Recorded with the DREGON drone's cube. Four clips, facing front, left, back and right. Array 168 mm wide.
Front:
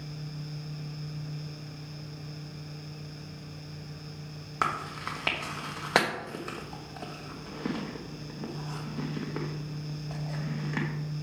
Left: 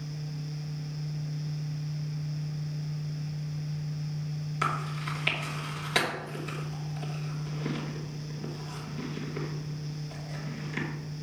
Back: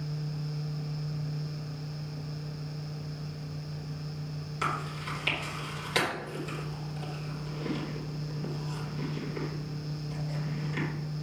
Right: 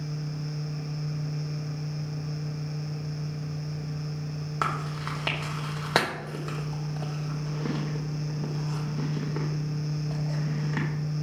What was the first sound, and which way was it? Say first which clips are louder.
Chewing: right 2 dB, front 3 dB; 40° right.